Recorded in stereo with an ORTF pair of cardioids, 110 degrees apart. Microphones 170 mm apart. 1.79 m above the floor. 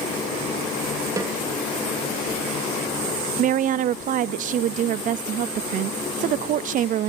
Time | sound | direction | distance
1.2 | a snare drum | 20° right | 3 m
3.4 | a woman speaking | 55° right | 0.6 m